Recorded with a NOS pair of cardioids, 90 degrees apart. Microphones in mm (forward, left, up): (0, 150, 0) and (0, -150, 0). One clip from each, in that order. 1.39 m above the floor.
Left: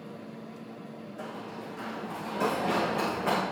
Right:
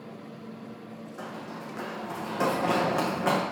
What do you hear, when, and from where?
1.2 s running footsteps: 50° right, 4.5 m; by 3.4 s 55° right, 6 m